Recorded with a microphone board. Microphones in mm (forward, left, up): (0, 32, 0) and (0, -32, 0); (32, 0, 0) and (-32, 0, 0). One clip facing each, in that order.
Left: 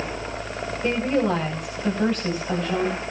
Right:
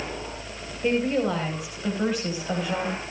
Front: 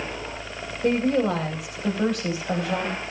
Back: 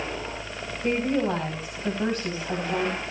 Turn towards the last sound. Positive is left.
turn(degrees=-10)